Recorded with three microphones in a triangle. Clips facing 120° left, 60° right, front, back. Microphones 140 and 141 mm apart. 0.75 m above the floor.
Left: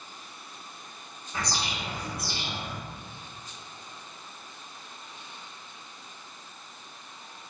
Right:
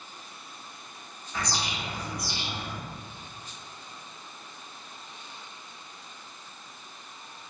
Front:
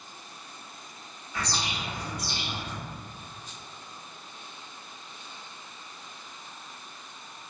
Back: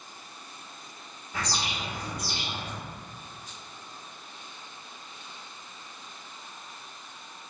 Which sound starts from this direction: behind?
A bird, at 1.3 s.